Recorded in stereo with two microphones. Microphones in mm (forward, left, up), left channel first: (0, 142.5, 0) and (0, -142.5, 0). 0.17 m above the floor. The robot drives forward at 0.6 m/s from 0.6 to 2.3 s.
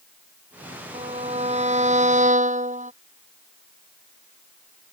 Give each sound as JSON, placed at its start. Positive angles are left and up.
{"t": 0.9, "sound": "a violin", "side_deg": -20}